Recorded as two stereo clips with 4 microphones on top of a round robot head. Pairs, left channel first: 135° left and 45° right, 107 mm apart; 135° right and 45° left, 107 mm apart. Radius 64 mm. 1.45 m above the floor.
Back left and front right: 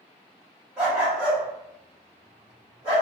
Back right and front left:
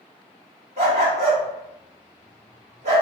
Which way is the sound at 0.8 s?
30° left.